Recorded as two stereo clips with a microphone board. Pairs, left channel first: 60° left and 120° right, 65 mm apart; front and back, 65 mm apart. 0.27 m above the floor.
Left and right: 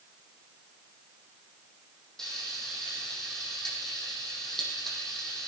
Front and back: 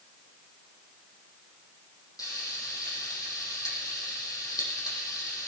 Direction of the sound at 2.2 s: 25° right.